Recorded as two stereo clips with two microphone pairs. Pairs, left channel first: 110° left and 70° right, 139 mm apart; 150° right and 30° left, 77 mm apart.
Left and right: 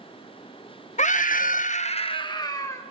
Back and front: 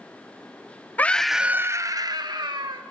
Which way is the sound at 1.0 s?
145° left.